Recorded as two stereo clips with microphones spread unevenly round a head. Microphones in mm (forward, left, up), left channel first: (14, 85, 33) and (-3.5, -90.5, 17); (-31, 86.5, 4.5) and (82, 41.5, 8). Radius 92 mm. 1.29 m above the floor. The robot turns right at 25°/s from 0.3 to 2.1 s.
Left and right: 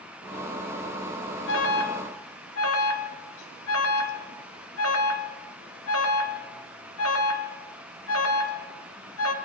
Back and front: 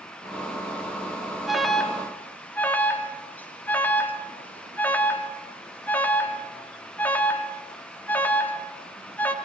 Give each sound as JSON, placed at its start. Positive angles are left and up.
{"t": 1.5, "sound": "an alarm", "azimuth_deg": 65, "distance_m": 2.5}